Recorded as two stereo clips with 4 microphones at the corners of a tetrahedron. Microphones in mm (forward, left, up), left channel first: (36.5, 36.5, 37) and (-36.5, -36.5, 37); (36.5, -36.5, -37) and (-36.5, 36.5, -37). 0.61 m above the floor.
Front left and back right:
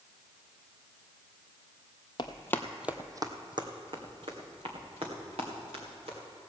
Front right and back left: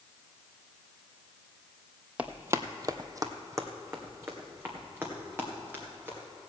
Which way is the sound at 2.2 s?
60° left.